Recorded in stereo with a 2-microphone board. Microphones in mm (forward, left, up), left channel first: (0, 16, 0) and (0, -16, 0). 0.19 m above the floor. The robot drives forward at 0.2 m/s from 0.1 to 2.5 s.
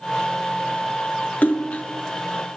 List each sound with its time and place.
1.4 s a splash: 70° left (ahead or behind), 0.9 m